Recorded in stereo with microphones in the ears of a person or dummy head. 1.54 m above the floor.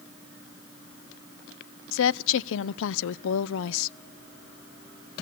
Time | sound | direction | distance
1.9 | a woman speaking | 70° left (ahead or behind) | 0.5 m